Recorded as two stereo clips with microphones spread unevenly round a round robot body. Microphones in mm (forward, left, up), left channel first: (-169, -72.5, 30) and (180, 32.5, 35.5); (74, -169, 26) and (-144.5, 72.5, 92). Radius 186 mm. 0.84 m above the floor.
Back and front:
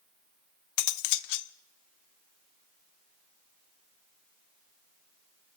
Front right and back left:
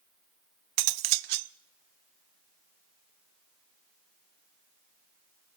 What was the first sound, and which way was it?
Cutlery clinking, 155° left.